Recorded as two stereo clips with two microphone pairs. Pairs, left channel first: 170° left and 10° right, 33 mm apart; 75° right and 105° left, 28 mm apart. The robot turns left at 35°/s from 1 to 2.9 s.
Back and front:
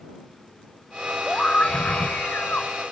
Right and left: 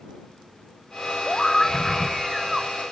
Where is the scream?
130° right; by 2.7 s straight behind.